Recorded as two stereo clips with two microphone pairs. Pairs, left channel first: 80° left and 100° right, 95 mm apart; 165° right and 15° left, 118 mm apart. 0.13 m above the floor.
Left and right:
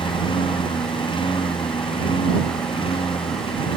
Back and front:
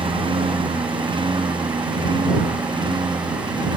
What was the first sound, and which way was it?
A lawn mower, 60° left.